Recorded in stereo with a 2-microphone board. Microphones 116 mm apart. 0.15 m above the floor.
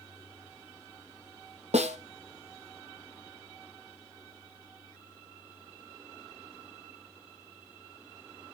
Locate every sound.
1.7 s a snare drum: 70° right (ahead or behind), 1.0 m